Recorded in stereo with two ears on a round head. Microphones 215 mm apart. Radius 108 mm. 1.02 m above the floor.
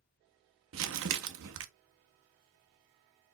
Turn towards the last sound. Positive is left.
turn(degrees=-55)  # may be behind; listen again after turning